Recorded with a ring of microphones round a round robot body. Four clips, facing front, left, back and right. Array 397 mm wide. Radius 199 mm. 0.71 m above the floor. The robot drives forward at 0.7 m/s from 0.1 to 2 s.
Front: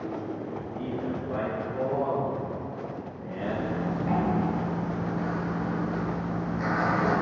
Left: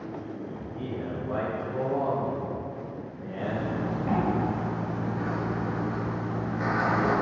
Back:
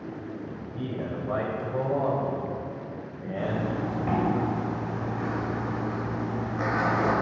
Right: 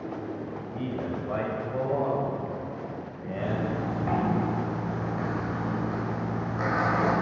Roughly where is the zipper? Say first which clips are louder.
Even, back 1 dB; behind right.